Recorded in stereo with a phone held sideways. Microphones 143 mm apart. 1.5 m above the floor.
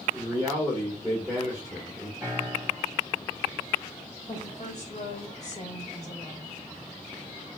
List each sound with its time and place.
0.1 s a man speaking: 10° right (ahead or behind), 1.4 m
2.2 s a piano: 25° right (ahead or behind), 2.5 m
4.3 s a woman speaking: 55° left (ahead or behind), 1.5 m